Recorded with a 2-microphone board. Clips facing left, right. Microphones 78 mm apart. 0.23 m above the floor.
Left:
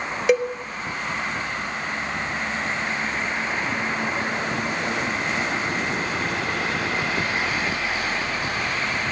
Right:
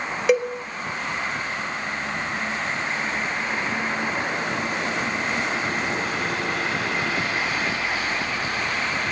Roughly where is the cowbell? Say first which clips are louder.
Even; centre.